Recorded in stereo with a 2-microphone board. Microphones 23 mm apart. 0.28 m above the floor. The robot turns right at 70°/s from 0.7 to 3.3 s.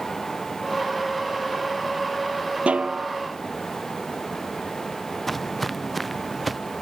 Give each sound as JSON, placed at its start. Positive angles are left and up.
{"t": 2.7, "sound": "a snare drum", "azimuth_deg": -75}
{"t": 5.3, "sound": "footsteps", "side_deg": 5}